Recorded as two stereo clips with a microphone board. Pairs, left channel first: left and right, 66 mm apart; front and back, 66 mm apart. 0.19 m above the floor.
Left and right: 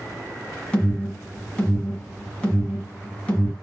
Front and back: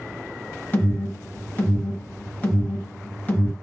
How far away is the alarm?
About 2 m.